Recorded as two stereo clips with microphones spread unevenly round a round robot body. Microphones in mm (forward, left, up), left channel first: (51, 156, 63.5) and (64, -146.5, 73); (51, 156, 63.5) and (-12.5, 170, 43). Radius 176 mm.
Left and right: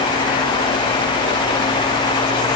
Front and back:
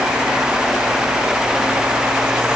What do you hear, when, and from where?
Only background noise.